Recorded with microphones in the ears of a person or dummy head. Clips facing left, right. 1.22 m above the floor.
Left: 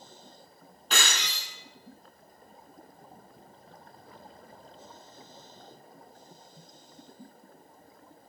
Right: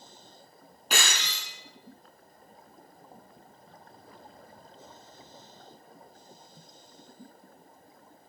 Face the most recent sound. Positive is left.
turn(degrees=-5)  # may be behind; listen again after turning